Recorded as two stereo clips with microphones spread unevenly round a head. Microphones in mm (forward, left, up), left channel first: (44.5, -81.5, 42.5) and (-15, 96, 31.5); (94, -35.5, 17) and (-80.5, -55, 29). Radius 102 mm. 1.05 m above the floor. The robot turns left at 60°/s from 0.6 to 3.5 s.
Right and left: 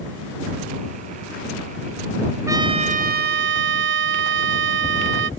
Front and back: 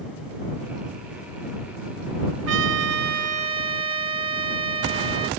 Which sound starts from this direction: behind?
A trumpet, at 2.5 s.